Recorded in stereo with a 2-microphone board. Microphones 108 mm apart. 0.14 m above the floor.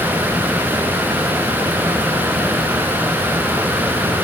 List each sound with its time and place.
Only background noise.